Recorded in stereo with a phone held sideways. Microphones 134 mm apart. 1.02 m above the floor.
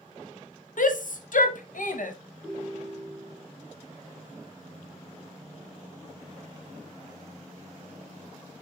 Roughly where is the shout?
Left.